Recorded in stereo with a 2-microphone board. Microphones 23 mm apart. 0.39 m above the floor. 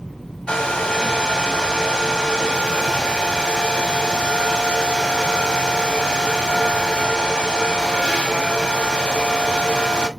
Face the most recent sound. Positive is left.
turn(degrees=40)  # may be behind; listen again after turning